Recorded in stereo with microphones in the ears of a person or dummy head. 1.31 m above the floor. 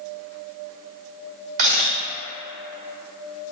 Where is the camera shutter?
50° right (ahead or behind), 1.7 m.